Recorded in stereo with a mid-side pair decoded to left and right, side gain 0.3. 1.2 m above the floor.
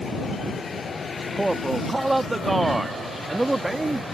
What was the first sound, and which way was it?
A man speaking, 20° right.